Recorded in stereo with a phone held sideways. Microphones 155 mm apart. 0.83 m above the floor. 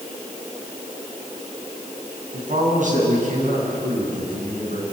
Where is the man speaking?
55° right (ahead or behind), 7 m.